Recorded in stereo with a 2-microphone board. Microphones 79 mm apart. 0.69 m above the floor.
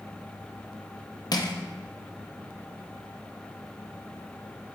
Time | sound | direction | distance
1.3 | crushing | 60° left (ahead or behind) | 0.7 m